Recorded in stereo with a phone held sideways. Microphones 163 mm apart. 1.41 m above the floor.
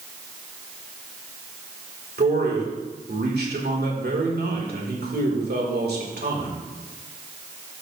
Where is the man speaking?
80° right, 2.5 m.